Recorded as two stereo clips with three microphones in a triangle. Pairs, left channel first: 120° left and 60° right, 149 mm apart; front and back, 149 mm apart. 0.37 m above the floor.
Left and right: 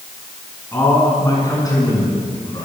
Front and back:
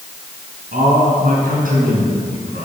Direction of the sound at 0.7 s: 165° right.